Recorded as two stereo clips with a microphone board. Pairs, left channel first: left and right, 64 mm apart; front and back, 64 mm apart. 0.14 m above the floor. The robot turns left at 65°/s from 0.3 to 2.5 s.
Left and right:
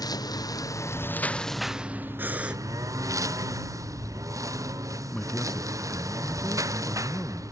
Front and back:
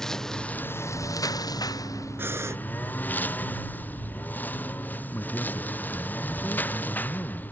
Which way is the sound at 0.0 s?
85° left.